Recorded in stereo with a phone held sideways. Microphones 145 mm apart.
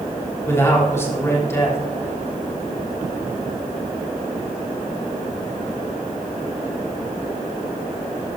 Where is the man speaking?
20° left (ahead or behind), 3 m.